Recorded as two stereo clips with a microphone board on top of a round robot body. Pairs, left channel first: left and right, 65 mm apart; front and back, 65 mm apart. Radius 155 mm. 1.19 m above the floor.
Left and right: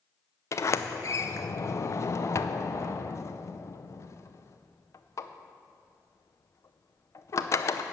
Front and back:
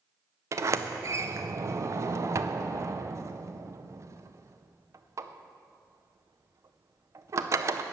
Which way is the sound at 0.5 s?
135° left.